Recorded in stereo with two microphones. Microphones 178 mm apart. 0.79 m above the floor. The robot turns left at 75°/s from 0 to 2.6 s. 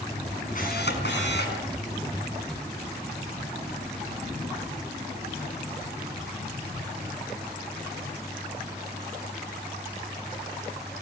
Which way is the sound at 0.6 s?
135° left.